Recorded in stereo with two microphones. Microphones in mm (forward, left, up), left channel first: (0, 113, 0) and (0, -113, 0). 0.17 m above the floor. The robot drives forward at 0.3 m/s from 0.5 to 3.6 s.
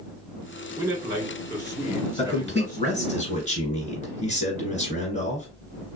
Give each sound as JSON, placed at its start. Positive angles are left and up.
{"t": 0.8, "sound": "a man speaking", "side_deg": -10, "distance_m": 1.9}
{"t": 2.2, "sound": "a man speaking", "side_deg": 30, "distance_m": 1.6}